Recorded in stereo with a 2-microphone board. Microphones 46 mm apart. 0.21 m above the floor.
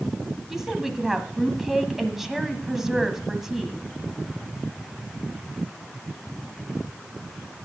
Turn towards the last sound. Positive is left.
turn(degrees=-10)  # may be behind; listen again after turning